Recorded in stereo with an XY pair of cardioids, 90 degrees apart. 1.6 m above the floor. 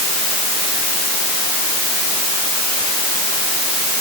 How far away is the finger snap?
I don't hear a finger snap.